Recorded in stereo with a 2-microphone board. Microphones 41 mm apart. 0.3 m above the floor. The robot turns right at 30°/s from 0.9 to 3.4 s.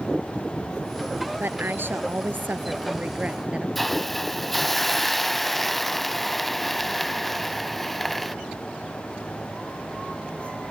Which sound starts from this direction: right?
A woman speaking, at 1.4 s.